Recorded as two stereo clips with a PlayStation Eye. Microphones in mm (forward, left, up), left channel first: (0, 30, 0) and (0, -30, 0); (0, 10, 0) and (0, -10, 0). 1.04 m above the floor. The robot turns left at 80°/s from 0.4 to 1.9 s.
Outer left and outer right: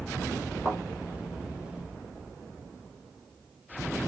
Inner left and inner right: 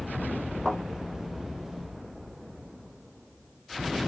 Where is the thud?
45° left (ahead or behind), 5 m; by 0.8 s 60° left (ahead or behind), 5 m.